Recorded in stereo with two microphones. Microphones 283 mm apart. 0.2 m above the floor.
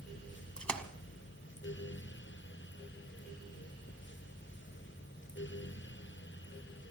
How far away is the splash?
About 1.7 m.